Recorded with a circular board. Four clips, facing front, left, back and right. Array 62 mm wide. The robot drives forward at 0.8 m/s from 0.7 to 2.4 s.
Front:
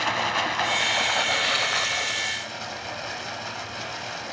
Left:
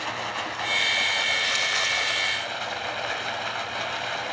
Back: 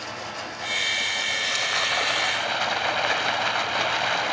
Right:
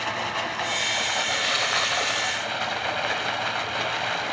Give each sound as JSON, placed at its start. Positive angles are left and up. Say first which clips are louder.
{"t": 0.0, "sound": "running water", "louder": "right 2 dB, front 9 dB", "azimuth_deg": -10, "distance_m": 1.0}